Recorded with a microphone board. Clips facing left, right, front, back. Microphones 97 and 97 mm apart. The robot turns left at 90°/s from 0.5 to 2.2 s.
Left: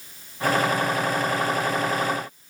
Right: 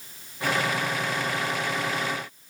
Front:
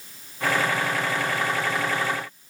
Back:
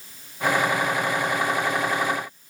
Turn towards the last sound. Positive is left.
No sound to turn to.